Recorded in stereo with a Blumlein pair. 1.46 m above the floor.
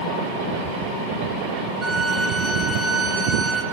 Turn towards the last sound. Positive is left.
turn(degrees=-10)